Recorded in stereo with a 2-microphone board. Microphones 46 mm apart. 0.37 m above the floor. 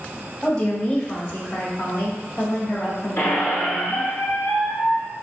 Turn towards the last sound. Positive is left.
turn(degrees=65)  # may be behind; listen again after turning